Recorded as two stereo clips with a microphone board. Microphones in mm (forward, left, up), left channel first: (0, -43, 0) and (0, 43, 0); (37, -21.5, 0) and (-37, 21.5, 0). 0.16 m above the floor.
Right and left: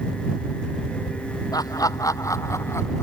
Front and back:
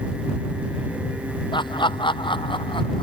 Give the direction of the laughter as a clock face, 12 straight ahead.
2 o'clock.